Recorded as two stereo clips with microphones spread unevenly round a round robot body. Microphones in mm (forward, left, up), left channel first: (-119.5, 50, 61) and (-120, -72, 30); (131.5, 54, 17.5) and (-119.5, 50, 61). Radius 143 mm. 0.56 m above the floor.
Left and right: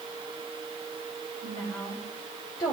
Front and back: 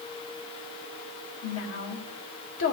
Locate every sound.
1.4 s a woman speaking: 15° left, 2.5 m